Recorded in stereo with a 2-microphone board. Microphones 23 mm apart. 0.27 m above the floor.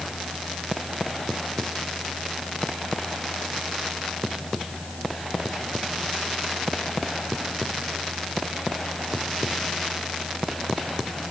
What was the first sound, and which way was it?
Only background noise.